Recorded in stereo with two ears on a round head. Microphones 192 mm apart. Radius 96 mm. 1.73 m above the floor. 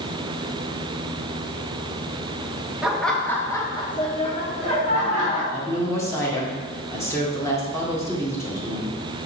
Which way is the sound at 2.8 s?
5° right (ahead or behind).